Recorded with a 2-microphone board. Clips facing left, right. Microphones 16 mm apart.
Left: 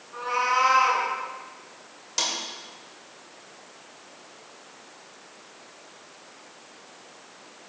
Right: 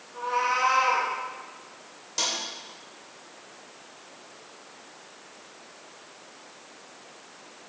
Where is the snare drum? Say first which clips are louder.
Left 1 dB; 25° left (ahead or behind), 1.9 m.